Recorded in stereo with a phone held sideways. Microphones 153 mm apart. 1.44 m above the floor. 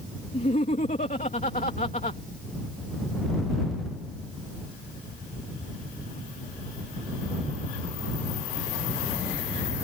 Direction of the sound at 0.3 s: 55° left (ahead or behind).